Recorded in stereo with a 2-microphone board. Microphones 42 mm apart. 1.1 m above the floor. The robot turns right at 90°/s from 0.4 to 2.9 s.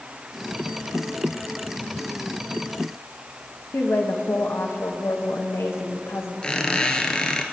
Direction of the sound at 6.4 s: 20° left (ahead or behind).